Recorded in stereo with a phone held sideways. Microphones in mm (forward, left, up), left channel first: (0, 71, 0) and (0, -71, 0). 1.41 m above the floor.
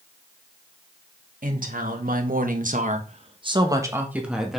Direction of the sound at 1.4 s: 70° right (ahead or behind).